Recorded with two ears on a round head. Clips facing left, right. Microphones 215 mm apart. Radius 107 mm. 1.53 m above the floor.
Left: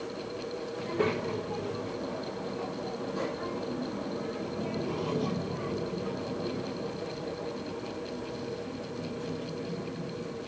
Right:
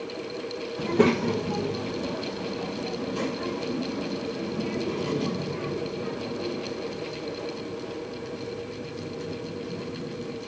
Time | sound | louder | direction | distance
0.8 | a child speaking | right 9 dB | 65° right (ahead or behind) | 1.1 m